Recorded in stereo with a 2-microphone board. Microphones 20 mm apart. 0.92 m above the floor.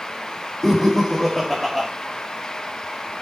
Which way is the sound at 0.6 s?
20° left (ahead or behind).